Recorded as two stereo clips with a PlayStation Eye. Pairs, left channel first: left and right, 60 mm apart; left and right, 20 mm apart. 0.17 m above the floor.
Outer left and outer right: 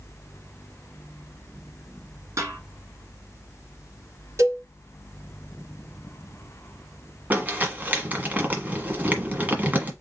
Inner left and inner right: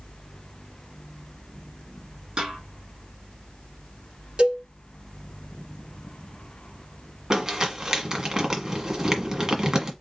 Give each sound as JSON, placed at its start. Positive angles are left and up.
{"t": 2.4, "sound": "a snare drum", "side_deg": -50, "distance_m": 2.5}
{"t": 4.4, "sound": "a cowbell", "side_deg": -55, "distance_m": 1.8}
{"t": 7.3, "sound": "crumpling", "side_deg": -30, "distance_m": 1.3}